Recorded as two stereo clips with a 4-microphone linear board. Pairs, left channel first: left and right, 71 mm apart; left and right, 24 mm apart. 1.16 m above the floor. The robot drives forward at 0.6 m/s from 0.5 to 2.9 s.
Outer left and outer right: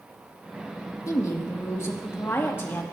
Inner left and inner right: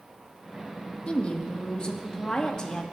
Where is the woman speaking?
50° left (ahead or behind), 1.7 m; by 2.8 s 30° left (ahead or behind), 2.5 m.